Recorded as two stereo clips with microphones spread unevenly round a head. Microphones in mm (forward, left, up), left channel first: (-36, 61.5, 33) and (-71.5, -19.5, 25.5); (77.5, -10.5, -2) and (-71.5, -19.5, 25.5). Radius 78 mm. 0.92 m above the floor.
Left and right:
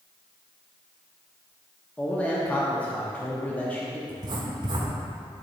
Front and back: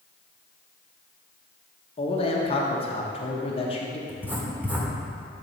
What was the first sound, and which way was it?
A man speaking, 10° right.